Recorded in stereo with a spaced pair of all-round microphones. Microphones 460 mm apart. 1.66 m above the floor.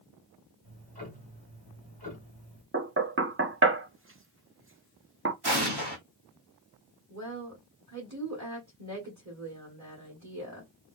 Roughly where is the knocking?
Right.